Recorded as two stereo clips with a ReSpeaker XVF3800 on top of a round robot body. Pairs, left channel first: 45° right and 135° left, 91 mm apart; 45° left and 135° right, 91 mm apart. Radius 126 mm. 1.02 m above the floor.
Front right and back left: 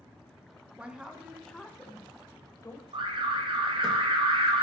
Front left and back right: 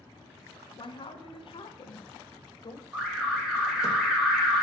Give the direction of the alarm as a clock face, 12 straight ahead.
7 o'clock.